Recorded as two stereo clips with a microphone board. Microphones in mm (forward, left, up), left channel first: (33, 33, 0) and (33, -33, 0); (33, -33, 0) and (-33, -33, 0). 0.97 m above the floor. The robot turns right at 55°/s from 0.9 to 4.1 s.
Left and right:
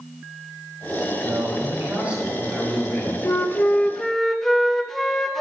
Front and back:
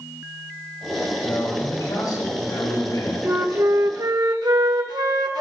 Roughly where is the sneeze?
I don't hear a sneeze.